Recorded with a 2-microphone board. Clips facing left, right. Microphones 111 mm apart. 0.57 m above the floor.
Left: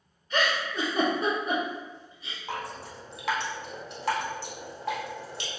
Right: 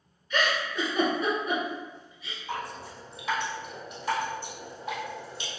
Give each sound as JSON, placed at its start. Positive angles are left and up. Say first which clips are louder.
{"t": 0.3, "sound": "a giggle", "louder": "even", "side_deg": 35, "distance_m": 1.4}
{"t": 2.5, "sound": "dripping", "louder": "even", "side_deg": 75, "distance_m": 0.9}